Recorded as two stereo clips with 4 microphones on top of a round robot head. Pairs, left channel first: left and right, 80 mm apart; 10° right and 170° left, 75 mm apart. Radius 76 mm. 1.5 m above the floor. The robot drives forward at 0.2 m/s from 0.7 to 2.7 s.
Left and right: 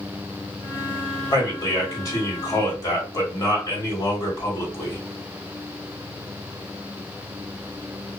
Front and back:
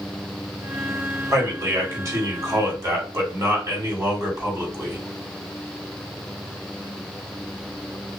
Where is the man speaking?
125° left, 1.6 m; by 5.0 s 135° left, 1.8 m.